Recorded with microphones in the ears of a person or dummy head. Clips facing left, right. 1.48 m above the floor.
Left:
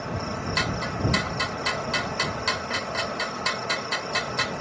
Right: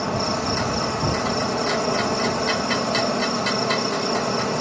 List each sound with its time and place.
0.0 s an insect: 70° right (ahead or behind)